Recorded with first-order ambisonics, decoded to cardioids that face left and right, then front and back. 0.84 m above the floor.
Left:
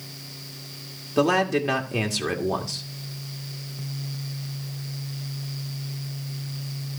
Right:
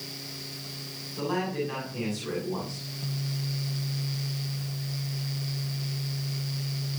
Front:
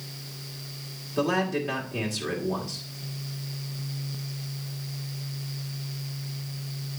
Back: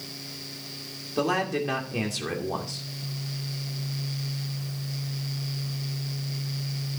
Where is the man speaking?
105° left, 2 m.